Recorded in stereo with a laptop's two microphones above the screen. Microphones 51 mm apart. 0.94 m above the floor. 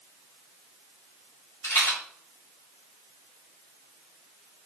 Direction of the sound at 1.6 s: 70° left (ahead or behind).